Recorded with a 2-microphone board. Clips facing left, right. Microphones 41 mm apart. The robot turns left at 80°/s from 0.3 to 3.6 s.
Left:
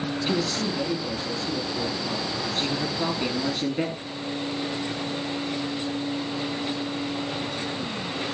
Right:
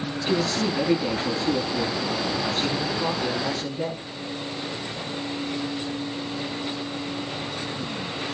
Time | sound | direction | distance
0.3 | a man speaking | 5° left | 5.5 m